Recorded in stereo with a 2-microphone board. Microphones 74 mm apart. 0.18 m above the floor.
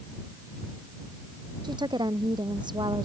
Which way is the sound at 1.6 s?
75° right (ahead or behind).